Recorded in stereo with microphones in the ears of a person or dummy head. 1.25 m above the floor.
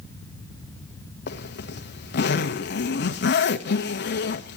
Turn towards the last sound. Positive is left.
turn(degrees=65)  # may be behind; listen again after turning